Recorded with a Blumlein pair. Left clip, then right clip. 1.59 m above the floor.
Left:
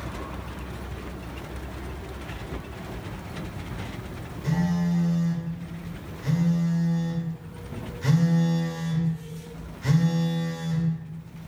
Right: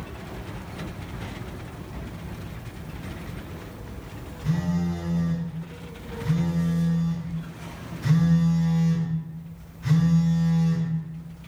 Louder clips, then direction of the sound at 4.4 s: Left 1 dB; 50° left.